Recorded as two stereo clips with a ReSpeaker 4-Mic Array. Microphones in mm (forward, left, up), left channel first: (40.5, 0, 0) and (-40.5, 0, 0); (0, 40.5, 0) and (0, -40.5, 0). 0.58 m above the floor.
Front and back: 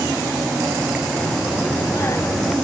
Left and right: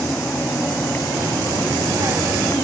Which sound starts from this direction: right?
A child speaking, at 1.2 s.